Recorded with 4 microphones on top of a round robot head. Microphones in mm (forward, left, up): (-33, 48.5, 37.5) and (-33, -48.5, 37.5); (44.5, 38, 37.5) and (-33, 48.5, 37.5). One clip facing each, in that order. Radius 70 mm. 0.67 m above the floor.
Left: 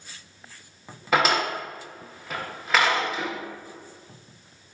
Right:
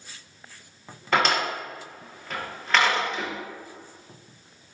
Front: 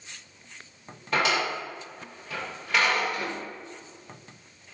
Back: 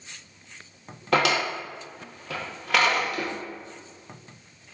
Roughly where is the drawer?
Behind.